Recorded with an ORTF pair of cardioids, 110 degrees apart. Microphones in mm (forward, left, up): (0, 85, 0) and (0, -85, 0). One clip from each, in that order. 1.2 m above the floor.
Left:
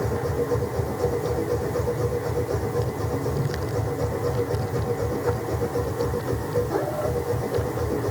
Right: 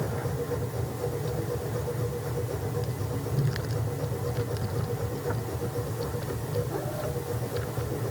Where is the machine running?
45° left.